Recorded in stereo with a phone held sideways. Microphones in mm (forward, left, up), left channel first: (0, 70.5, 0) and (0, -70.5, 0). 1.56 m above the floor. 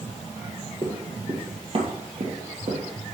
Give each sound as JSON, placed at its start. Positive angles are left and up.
{"t": 0.8, "sound": "running footsteps", "side_deg": -30, "distance_m": 1.8}